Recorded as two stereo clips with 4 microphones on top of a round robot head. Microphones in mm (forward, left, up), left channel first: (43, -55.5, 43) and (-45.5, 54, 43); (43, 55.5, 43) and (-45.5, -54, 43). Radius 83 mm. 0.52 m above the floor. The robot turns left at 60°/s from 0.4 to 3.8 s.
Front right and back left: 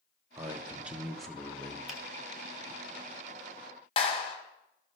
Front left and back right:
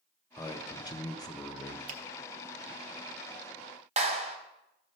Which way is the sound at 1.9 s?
145° right.